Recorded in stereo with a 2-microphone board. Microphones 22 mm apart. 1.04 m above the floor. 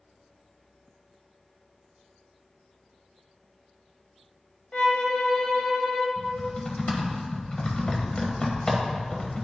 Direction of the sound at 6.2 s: 40° left (ahead or behind).